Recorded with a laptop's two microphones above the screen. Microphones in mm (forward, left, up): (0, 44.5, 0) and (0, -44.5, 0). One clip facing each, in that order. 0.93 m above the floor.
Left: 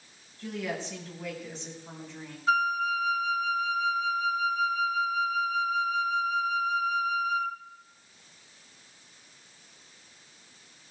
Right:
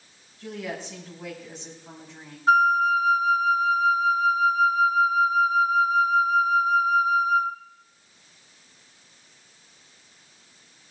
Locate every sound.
0.4 s a woman speaking: 15° right (ahead or behind), 5.5 m
2.5 s a flute: 45° right (ahead or behind), 1.1 m